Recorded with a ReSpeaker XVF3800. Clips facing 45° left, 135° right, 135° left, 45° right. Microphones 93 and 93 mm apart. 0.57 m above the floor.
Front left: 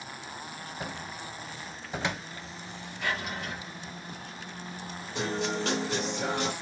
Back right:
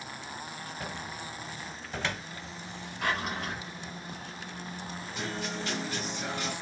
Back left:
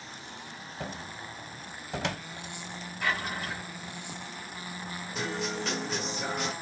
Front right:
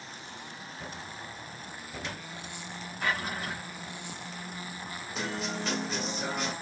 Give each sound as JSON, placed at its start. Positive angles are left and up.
{"t": 0.8, "sound": "a cupboard door", "azimuth_deg": 120, "distance_m": 0.7}
{"t": 3.0, "sound": "a drawer", "azimuth_deg": -100, "distance_m": 3.0}
{"t": 5.2, "sound": "a guitar", "azimuth_deg": 45, "distance_m": 1.4}